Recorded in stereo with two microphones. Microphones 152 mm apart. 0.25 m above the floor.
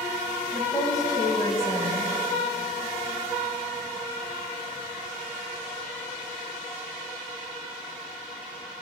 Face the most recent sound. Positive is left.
turn(degrees=25)  # may be behind; listen again after turning